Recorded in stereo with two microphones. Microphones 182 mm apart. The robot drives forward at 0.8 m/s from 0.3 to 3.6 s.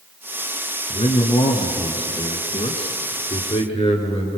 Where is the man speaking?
35° left (ahead or behind), 2.0 m; by 4.4 s 30° left (ahead or behind), 2.5 m.